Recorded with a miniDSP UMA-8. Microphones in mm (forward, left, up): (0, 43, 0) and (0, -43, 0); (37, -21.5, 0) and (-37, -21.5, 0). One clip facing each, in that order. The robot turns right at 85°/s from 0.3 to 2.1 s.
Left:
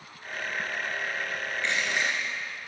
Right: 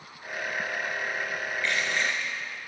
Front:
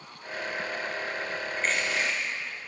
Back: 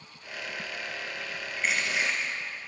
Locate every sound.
1.6 s crushing: 105° left, 1.7 m; by 2.3 s 150° left, 1.7 m